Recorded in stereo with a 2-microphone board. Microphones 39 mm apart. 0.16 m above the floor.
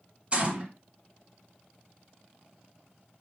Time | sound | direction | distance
0.3 | a gunshot | 30° right (ahead or behind) | 1.6 m